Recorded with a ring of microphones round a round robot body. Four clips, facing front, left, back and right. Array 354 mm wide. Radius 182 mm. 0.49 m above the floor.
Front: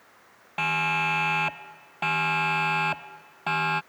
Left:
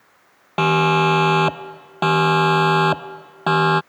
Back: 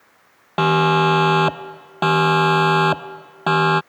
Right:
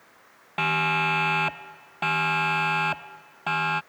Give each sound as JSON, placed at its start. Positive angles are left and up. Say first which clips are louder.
{"t": 0.6, "sound": "a siren", "louder": "left 9 dB, back 12 dB", "azimuth_deg": 140}